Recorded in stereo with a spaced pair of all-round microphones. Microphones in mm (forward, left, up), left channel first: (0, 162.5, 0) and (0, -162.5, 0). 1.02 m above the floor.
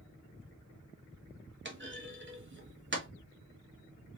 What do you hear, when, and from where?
1.6 s a clunk: 35° right (ahead or behind), 1.3 m